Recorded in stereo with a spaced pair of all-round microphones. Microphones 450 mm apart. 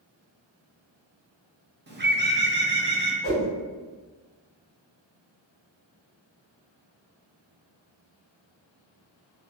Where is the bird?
25° right (ahead or behind), 0.6 m.